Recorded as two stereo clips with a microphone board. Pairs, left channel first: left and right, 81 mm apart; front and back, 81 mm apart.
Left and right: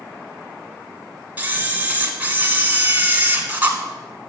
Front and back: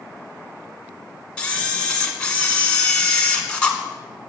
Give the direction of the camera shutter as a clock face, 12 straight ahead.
2 o'clock.